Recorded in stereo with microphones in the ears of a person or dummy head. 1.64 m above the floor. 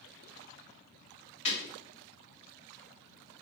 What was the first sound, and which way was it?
Breaking glass, 40° left (ahead or behind).